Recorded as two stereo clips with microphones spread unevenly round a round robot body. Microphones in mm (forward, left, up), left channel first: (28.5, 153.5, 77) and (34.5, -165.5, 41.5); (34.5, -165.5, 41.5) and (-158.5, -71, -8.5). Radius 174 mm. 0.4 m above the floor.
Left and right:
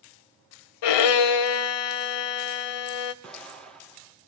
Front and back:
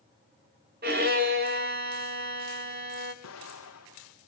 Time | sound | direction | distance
0.8 | a violin | 95° left | 0.9 m
3.2 | an explosion | 5° left | 2.5 m